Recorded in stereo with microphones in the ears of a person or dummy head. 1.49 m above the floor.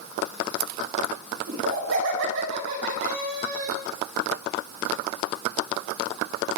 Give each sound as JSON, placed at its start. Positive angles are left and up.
{"t": 1.5, "sound": "laughter", "side_deg": -80, "distance_m": 6.5}